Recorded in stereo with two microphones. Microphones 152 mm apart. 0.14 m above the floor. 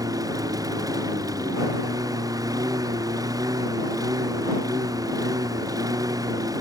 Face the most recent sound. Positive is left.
turn(degrees=-25)  # may be behind; listen again after turning